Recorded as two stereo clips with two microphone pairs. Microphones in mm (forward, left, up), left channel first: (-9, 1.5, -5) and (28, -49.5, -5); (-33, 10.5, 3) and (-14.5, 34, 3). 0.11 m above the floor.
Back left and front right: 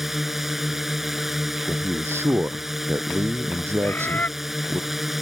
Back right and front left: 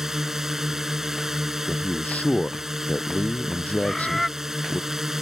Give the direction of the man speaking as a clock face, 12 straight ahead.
3 o'clock.